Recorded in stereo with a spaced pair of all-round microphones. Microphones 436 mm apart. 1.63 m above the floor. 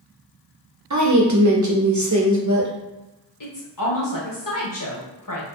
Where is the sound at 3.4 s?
45° left (ahead or behind), 0.9 m.